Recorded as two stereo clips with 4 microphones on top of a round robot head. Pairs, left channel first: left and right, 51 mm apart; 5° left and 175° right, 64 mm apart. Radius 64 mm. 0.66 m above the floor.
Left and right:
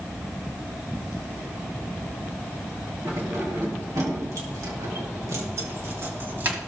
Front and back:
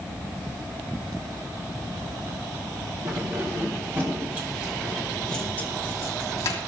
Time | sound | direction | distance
3.0 | keys jangling | 130° right | 4 m